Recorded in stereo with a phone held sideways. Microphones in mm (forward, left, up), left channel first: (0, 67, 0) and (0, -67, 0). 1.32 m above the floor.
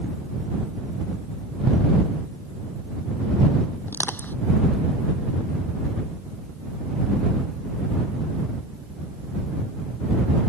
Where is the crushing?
15° left (ahead or behind).